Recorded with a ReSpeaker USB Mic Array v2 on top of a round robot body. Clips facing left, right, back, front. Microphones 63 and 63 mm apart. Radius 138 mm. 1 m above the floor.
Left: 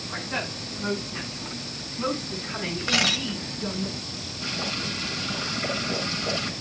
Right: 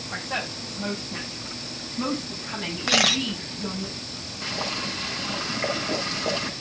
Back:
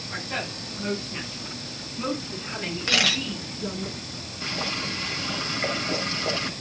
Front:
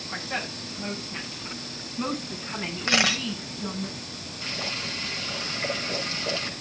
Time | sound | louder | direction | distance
0.1 | a woman speaking | right 1 dB, even | 80° right | 7.5 m
2.9 | a camera shutter | right 3 dB, front 1 dB | 70° right | 1.0 m
4.4 | boiling | right 1 dB, back 3 dB | 120° right | 6 m